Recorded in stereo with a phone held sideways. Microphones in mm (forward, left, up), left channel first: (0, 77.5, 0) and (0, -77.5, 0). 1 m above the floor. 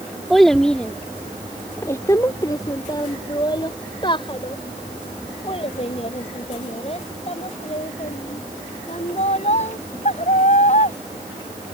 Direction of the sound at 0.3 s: Centre (ahead or behind).